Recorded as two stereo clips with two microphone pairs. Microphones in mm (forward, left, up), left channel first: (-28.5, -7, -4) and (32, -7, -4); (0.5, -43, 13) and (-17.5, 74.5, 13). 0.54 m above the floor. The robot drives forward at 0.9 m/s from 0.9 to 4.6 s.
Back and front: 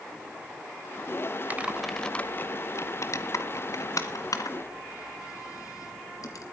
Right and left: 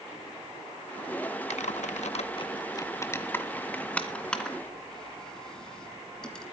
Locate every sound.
1.5 s typing on a keyboard: 60° right, 0.7 m; by 6.4 s 165° right, 2.5 m